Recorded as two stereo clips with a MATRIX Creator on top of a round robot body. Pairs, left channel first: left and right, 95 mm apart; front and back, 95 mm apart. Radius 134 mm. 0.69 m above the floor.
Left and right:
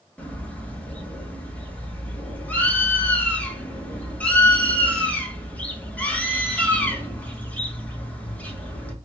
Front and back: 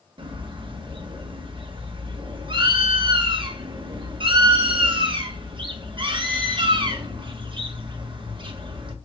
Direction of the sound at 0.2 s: 160° left.